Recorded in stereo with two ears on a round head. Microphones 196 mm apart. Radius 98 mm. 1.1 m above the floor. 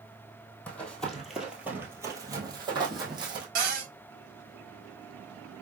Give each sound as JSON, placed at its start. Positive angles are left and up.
{"t": 0.7, "sound": "running footsteps", "side_deg": 5, "distance_m": 1.5}
{"t": 3.5, "sound": "a cupboard door", "side_deg": -40, "distance_m": 1.7}